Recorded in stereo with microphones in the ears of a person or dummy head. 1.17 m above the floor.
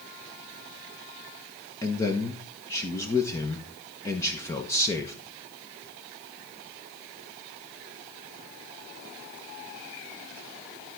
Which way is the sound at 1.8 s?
15° left (ahead or behind).